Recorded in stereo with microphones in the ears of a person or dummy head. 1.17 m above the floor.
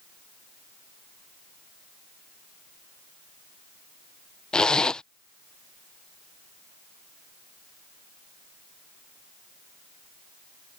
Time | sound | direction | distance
4.5 | a zipper | 5° left (ahead or behind) | ?